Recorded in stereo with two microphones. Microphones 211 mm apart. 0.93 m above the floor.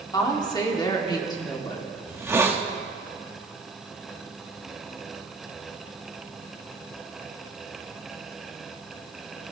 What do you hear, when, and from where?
0.1 s a woman speaking: 20° left (ahead or behind), 2 m
2.1 s a hiss: 10° right (ahead or behind), 1.2 m